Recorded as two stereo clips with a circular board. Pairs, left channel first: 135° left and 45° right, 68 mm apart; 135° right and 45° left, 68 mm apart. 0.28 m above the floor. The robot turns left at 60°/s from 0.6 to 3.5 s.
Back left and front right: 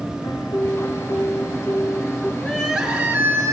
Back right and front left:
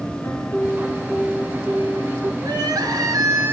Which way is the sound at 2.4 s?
55° left.